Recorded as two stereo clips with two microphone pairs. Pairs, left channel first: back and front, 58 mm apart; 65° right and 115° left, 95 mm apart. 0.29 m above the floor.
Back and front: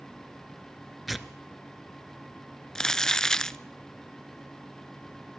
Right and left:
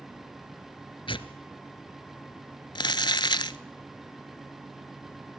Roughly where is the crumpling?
Right.